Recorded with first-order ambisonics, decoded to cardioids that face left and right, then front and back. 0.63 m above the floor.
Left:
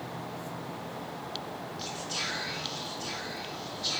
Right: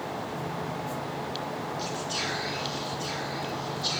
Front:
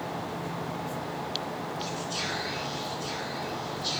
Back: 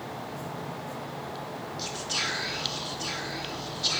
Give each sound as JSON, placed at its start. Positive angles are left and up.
{"t": 1.8, "sound": "whispering", "azimuth_deg": -175, "distance_m": 0.9}